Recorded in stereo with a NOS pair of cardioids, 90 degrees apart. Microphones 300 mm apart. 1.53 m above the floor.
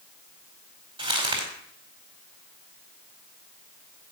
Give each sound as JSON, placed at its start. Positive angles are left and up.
{"t": 1.0, "sound": "crumpling", "azimuth_deg": -15, "distance_m": 4.5}